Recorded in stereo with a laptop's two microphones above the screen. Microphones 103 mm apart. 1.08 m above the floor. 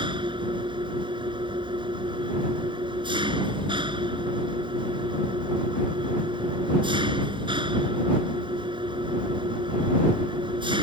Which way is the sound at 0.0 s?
55° right (ahead or behind).